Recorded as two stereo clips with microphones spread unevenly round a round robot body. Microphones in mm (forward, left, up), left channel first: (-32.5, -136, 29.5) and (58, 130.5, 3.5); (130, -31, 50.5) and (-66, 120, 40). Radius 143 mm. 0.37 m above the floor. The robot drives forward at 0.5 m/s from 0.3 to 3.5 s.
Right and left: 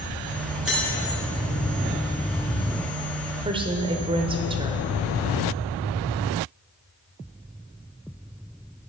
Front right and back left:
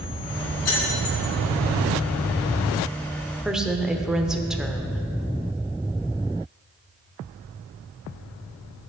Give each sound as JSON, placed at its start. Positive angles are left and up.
{"t": 0.7, "sound": "keys jangling", "azimuth_deg": -15, "distance_m": 3.5}
{"t": 3.5, "sound": "a woman speaking", "azimuth_deg": 60, "distance_m": 1.0}